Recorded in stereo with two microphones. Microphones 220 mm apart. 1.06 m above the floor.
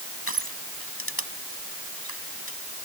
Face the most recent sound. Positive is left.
turn(degrees=80)